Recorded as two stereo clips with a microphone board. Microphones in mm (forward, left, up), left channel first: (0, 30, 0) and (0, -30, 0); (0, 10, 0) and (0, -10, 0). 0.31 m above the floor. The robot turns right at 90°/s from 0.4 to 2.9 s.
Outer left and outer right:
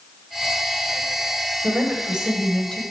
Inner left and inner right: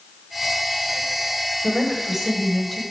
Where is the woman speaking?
70° right, 1.1 m; by 2.8 s 35° left, 1.1 m.